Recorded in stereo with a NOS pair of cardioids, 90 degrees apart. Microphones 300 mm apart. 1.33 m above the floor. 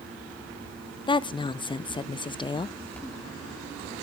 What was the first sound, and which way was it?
A fan, 5° left.